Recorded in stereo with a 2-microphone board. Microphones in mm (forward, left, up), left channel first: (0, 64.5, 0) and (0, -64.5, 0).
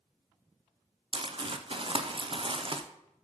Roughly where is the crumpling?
Right.